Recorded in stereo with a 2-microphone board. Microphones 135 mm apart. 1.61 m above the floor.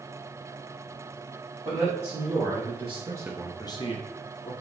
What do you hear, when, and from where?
1.6 s a man speaking: 50° right (ahead or behind), 2.5 m; by 4.5 s 50° left (ahead or behind), 1.5 m